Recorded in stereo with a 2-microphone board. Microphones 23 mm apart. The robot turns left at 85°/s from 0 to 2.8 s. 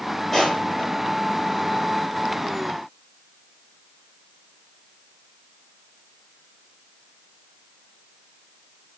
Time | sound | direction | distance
0.3 | crushing | centre (ahead or behind) | 5.5 m